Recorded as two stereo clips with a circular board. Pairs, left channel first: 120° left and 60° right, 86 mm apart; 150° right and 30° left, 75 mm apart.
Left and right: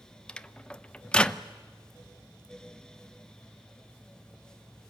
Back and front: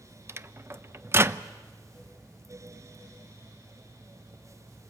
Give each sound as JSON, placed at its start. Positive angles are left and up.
{"t": 0.3, "sound": "a microwave", "azimuth_deg": 50, "distance_m": 0.6}